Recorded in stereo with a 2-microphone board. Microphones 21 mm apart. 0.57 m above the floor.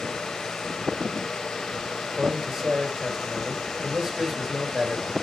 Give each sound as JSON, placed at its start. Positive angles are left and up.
{"t": 2.0, "sound": "a man speaking", "side_deg": -15, "distance_m": 2.5}